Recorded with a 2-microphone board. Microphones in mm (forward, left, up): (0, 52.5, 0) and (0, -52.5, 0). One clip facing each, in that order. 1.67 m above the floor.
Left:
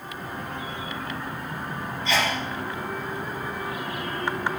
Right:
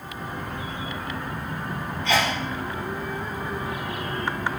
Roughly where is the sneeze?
Right.